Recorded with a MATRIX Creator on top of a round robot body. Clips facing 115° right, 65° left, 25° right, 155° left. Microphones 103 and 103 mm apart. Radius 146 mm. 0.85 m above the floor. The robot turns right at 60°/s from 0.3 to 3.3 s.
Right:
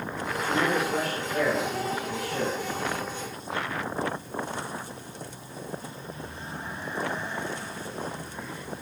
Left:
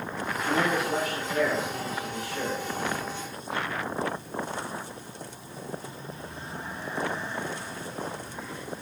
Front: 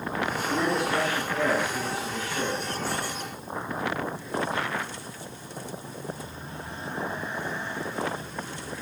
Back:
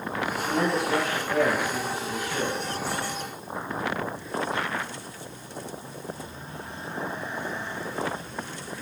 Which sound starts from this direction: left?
A man speaking, at 0.3 s.